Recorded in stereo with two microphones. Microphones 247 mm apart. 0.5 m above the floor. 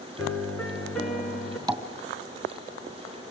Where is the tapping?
15° right (ahead or behind), 2.5 m.